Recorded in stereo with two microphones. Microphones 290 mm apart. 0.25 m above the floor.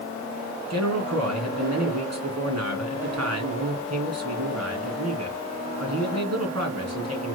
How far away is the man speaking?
About 2.5 m.